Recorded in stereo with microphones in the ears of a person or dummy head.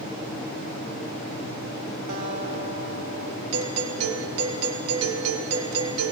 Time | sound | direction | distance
2.1 | a guitar | 80° right | 3.5 m
3.5 | a doorbell | 70° right (ahead or behind) | 3 m